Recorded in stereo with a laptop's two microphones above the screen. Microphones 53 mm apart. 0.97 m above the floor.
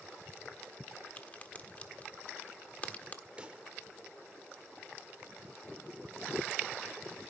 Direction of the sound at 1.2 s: 30° left (ahead or behind).